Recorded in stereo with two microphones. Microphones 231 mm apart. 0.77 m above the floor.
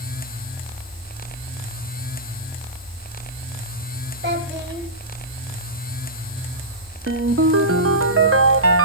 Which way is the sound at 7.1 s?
70° right (ahead or behind).